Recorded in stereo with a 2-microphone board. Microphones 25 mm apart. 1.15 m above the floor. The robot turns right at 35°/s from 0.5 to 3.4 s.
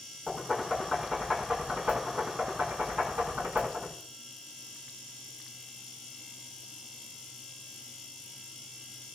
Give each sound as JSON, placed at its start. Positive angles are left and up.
{"t": 0.3, "sound": "knocking", "side_deg": 5, "distance_m": 6.5}